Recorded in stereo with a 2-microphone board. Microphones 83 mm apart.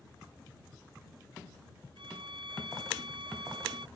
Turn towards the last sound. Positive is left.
turn(degrees=-90)